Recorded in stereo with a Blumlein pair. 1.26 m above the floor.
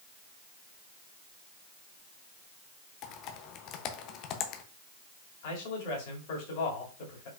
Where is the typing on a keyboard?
35° left, 0.7 m.